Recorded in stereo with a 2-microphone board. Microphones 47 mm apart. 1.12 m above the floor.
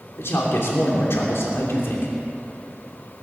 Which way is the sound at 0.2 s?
70° left (ahead or behind).